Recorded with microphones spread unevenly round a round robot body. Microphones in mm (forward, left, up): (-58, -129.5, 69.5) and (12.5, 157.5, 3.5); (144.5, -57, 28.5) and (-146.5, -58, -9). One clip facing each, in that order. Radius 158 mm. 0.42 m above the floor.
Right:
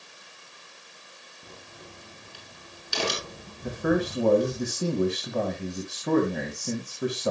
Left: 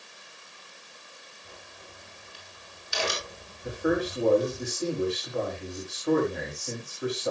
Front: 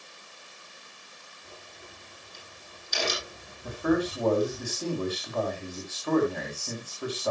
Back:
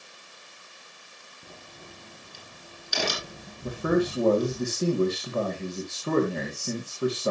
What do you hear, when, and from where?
1.4 s a crack: 150° right, 6.5 m
3.6 s a man speaking: 120° right, 3.5 m